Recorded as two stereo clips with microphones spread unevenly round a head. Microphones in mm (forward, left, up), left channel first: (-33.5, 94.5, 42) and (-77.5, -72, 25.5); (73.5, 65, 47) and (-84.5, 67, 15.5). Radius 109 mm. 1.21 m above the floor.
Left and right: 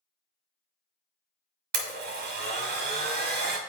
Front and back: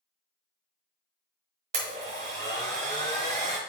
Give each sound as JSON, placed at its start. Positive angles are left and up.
{"t": 1.7, "sound": "a blender", "azimuth_deg": -120, "distance_m": 1.2}